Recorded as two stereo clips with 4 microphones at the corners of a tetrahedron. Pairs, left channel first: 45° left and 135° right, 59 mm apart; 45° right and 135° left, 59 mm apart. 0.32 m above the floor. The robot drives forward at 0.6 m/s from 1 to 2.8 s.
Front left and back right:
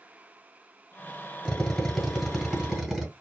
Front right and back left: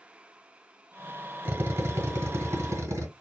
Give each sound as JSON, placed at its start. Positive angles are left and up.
{"t": 1.4, "sound": "a drill", "azimuth_deg": 115, "distance_m": 1.2}